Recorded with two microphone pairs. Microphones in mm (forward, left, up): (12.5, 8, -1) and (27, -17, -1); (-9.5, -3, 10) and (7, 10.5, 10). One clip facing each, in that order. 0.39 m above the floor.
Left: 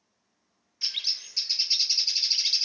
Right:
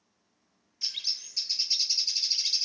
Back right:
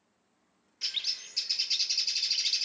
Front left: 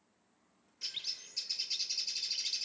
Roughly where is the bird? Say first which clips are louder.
Left 3 dB, back right 7 dB; behind.